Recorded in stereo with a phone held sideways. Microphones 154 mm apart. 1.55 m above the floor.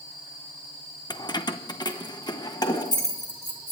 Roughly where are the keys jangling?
Left.